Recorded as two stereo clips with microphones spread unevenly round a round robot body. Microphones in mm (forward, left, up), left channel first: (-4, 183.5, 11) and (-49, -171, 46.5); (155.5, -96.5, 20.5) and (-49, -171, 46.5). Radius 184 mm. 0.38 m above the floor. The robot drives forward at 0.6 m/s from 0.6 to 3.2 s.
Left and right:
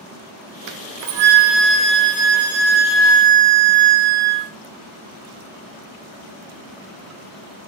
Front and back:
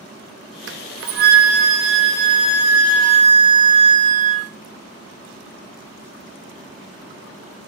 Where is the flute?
130° right, 0.8 m; by 4.5 s 165° right, 2 m.